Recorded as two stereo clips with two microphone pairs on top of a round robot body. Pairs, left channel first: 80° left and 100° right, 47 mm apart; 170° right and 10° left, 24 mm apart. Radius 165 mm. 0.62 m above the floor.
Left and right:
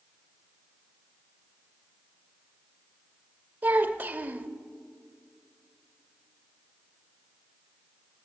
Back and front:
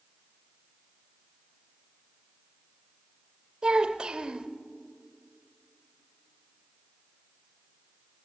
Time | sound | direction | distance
3.6 | a child speaking | 45° right | 0.7 m